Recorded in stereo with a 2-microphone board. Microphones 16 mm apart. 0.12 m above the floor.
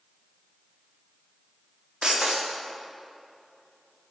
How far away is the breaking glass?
About 5.5 m.